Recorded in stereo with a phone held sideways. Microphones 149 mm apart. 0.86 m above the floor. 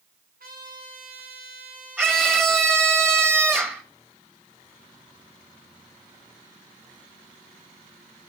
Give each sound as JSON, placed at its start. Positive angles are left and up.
{"t": 0.4, "sound": "a trumpet", "side_deg": -80, "distance_m": 5.0}
{"t": 2.0, "sound": "a scream", "side_deg": -15, "distance_m": 1.4}